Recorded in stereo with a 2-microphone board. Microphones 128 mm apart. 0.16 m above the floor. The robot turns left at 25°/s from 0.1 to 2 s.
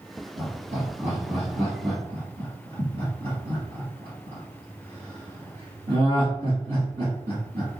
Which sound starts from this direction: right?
Laughter, at 0.4 s.